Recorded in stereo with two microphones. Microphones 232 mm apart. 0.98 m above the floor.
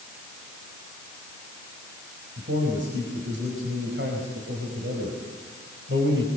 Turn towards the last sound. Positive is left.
turn(degrees=-60)  # may be behind; listen again after turning